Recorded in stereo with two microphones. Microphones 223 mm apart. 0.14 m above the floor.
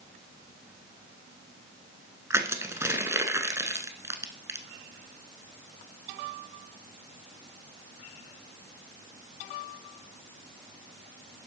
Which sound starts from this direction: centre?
Crushing, at 2.3 s.